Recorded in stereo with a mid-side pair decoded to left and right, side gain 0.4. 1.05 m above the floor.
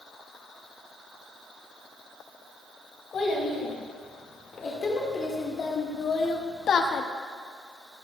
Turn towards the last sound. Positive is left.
turn(degrees=65)